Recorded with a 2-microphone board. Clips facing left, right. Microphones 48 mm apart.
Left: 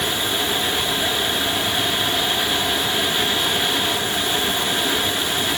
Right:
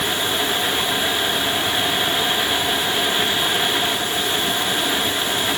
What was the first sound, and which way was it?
Only background noise.